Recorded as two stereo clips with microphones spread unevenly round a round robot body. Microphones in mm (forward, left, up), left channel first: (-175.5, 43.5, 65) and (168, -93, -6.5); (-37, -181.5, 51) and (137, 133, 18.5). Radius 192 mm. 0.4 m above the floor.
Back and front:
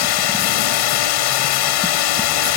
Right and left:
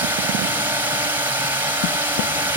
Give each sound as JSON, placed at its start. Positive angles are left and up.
{"t": 0.0, "sound": "a drone", "azimuth_deg": 140}